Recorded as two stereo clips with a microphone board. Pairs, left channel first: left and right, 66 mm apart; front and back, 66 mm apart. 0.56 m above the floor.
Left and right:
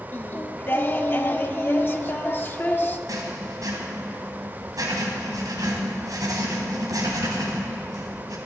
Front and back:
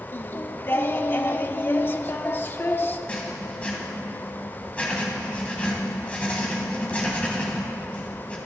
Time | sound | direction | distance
0.1 | singing | 40° left | 0.7 m
3.1 | writing | 70° right | 2.5 m